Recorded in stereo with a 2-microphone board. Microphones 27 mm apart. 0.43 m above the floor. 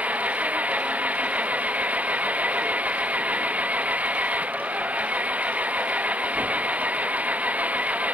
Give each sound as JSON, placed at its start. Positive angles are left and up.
{"t": 0.0, "sound": "an engine running", "side_deg": -60}